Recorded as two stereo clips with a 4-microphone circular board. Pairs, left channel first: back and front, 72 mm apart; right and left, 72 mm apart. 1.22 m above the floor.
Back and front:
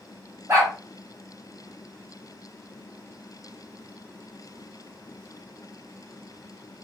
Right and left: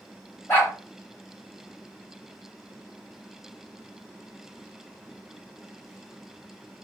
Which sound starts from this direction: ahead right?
A dog barking, at 0.5 s.